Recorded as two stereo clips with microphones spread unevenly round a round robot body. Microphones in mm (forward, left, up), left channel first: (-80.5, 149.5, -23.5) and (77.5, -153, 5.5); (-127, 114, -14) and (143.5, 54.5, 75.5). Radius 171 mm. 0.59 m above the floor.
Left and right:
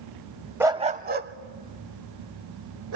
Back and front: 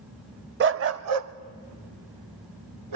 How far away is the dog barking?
About 0.5 m.